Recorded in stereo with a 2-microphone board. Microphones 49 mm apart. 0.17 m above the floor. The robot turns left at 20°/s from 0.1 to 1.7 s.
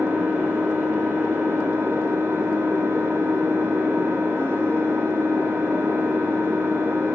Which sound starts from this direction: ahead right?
An engine running, at 0.0 s.